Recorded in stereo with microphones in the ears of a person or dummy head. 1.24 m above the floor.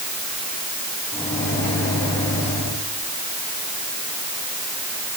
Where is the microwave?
20° left (ahead or behind), 6.5 m.